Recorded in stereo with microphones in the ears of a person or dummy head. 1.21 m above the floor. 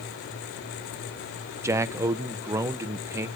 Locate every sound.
1.6 s a man speaking: 15° right (ahead or behind), 0.5 m